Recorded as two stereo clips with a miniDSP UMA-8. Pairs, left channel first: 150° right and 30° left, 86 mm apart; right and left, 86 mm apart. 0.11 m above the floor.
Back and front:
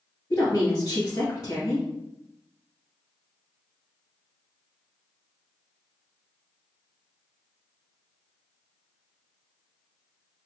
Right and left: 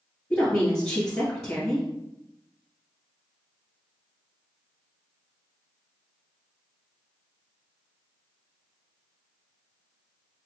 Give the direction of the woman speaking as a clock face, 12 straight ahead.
5 o'clock.